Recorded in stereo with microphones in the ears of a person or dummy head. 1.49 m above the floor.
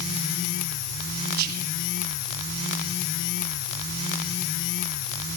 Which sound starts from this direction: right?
Whispering, at 1.4 s.